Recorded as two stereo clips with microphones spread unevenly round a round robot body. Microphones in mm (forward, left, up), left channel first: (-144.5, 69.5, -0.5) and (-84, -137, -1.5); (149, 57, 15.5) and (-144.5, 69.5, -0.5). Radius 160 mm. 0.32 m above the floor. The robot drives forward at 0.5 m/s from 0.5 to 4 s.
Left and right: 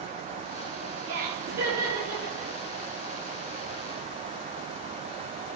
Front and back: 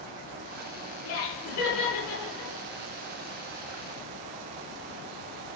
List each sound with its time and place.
1.1 s laughter: 25° left, 4.5 m; by 2.5 s 35° left, 3.5 m